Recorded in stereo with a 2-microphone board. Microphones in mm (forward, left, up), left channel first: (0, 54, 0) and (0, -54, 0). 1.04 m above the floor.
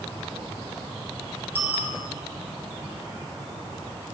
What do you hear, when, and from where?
1.6 s a bicycle bell: 20° right (ahead or behind), 3.5 m